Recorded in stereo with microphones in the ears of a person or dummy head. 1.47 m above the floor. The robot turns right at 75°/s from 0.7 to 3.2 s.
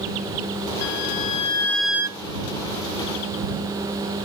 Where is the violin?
105° left; by 2.2 s 155° right.